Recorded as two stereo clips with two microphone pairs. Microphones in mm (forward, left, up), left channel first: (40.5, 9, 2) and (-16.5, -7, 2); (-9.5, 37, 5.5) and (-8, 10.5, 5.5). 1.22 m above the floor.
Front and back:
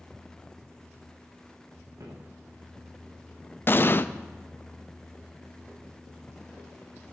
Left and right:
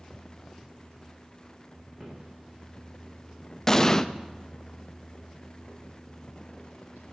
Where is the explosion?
40° left, 0.5 m.